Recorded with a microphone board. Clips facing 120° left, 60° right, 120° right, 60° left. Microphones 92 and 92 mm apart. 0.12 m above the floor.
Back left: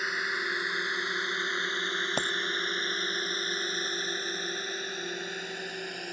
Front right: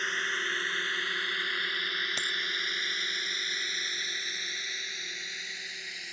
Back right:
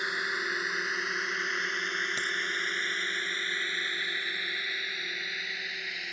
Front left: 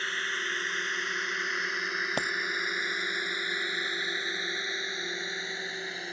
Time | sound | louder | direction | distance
0.0 | a drone | back left 1 dB, back right 1 dB | 170° right | ?
2.2 | a dropped coin | back left 6 dB, front left 3 dB | 85° left | ?